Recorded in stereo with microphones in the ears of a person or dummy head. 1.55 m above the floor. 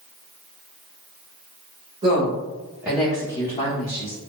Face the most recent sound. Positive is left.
turn(degrees=55)  # may be behind; listen again after turning